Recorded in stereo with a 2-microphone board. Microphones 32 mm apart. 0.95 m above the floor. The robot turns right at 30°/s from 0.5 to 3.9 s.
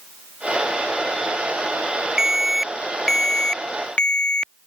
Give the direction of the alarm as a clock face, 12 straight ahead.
1 o'clock.